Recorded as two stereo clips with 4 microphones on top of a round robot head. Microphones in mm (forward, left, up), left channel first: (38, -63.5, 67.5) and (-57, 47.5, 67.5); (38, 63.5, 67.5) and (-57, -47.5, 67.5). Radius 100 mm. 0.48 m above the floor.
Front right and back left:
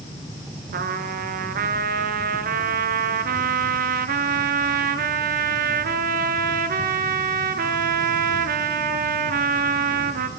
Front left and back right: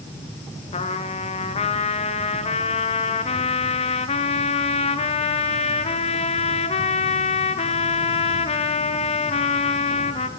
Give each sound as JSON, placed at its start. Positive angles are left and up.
{"t": 0.7, "sound": "a trumpet", "azimuth_deg": 100, "distance_m": 1.5}